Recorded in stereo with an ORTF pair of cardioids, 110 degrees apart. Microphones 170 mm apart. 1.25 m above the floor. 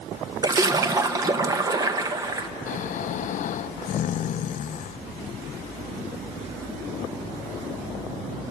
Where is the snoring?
50° left, 0.6 m.